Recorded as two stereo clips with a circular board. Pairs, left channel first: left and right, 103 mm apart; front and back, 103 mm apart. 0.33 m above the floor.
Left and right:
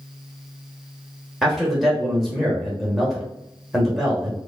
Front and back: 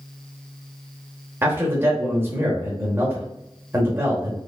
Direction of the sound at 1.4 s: Straight behind.